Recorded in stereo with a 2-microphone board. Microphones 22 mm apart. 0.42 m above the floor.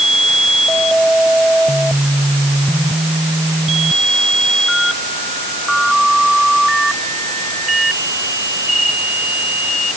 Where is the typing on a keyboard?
I don't hear typing on a keyboard.